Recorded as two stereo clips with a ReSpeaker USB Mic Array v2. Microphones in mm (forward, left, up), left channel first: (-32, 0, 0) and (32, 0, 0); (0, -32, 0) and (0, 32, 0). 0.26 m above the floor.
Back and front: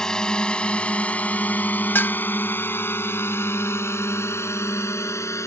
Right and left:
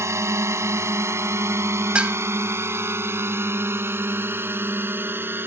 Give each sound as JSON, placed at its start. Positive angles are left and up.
{"t": 0.0, "sound": "a drone", "azimuth_deg": 105}
{"t": 1.9, "sound": "dishes clattering", "azimuth_deg": 150}